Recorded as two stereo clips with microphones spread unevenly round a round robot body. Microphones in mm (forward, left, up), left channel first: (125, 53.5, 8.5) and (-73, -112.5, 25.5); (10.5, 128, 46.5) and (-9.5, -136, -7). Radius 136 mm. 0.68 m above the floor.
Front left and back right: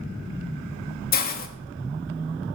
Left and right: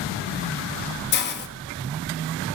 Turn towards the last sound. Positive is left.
turn(degrees=45)